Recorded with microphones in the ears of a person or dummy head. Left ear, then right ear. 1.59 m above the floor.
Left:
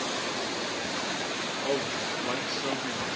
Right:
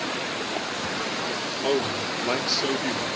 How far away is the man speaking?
About 2 m.